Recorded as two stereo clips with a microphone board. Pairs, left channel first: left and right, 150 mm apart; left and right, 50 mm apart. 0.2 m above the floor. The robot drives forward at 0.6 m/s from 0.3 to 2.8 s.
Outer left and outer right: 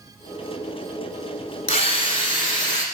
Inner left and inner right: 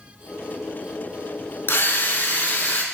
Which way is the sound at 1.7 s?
45° left (ahead or behind).